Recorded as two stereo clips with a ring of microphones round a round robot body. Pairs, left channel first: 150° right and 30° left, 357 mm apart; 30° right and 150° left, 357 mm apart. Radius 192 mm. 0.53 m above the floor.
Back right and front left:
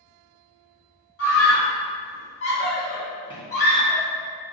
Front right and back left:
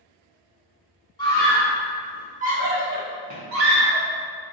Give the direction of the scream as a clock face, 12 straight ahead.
4 o'clock.